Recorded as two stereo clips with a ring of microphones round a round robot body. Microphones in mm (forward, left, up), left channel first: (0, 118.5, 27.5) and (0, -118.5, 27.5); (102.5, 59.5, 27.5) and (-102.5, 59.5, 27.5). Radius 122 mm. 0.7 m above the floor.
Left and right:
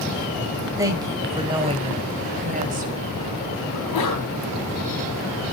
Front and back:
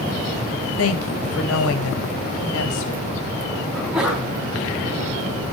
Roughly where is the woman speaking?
Ahead.